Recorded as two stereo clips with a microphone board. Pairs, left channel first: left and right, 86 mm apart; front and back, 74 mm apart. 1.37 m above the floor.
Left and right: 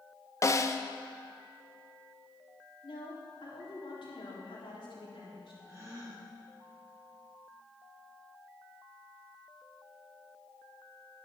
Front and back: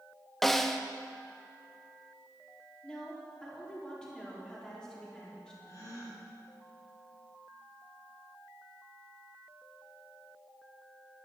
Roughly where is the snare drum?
Left.